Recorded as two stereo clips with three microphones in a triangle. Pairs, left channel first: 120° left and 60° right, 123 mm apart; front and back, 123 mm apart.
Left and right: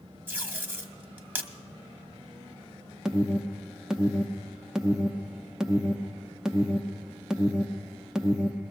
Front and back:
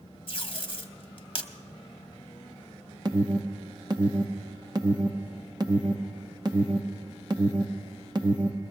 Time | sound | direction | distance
0.3 | tape being pulled | 10° left | 1.0 m
3.0 | an alarm | 140° right | 0.7 m